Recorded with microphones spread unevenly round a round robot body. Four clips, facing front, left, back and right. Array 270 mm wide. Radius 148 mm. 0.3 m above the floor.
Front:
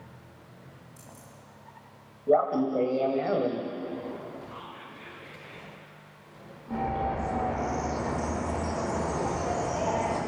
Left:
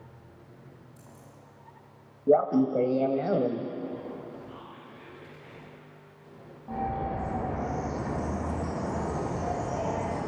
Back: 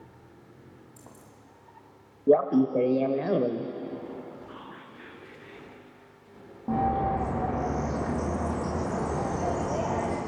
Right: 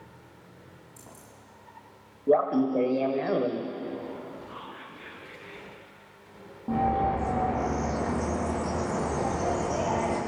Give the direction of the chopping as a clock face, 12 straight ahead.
I don't hear chopping.